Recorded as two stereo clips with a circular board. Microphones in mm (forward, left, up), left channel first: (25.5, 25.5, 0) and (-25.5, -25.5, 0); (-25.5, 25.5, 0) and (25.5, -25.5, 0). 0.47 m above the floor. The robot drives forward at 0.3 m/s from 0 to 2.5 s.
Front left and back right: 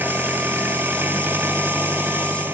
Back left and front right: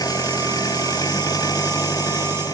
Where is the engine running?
160° left; by 2.5 s 165° left.